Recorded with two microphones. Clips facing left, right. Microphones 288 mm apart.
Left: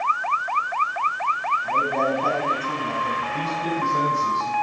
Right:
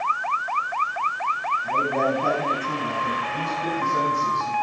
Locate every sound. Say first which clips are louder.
1.6 s a man speaking: right 1 dB; 5° right (ahead or behind), 9 m
3.3 s a man speaking: left 3 dB; 20° left (ahead or behind), 6.5 m